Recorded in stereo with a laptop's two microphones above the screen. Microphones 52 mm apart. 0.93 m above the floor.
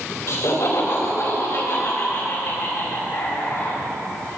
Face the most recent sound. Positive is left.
turn(degrees=50)  # may be behind; listen again after turning